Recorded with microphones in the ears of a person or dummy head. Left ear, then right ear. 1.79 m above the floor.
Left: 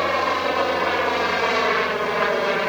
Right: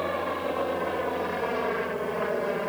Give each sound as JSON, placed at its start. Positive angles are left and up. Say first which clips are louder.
{"t": 0.0, "sound": "a helicopter", "louder": "left 8 dB", "side_deg": 65}